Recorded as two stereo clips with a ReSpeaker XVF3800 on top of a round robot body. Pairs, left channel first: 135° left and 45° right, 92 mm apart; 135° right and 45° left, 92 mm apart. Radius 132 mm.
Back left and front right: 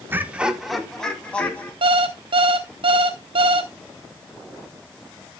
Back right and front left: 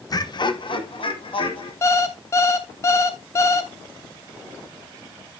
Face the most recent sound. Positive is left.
turn(degrees=-75)